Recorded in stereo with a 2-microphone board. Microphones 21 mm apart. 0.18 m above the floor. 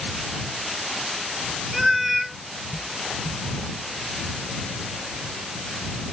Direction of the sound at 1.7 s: 5° right (ahead or behind).